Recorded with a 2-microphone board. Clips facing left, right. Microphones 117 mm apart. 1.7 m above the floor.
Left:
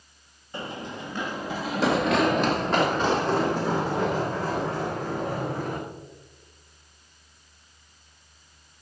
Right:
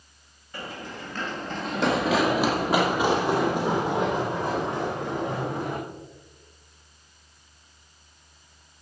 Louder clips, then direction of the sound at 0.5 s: Left 2 dB; 25° left (ahead or behind).